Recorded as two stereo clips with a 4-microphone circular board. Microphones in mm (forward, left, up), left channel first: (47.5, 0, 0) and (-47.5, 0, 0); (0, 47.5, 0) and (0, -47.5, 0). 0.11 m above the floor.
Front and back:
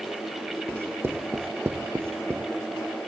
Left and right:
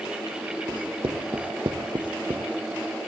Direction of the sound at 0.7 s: 115° right.